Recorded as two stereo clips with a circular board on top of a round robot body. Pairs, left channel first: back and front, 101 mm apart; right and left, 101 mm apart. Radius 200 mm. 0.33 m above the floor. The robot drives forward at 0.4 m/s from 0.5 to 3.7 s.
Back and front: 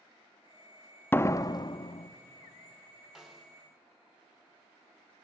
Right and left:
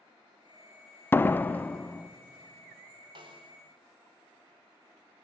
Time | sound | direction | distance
1.1 | a door slam | 135° right | 0.5 m
3.1 | a snare drum | 85° left | 2.5 m